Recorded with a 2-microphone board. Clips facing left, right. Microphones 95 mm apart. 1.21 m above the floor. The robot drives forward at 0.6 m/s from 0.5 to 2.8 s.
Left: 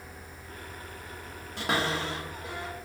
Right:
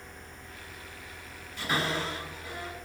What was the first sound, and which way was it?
A cupboard door, 70° left (ahead or behind).